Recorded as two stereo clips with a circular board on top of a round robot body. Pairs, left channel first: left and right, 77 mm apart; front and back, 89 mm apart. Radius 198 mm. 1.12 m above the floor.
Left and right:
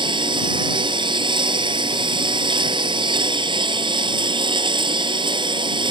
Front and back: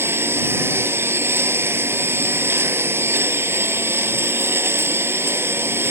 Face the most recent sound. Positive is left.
turn(degrees=-115)